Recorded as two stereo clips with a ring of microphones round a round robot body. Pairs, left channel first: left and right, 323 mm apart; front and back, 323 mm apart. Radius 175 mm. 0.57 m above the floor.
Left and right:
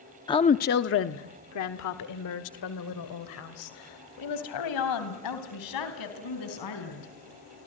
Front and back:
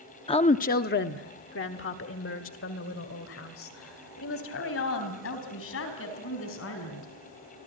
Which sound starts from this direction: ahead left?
A woman speaking, at 0.3 s.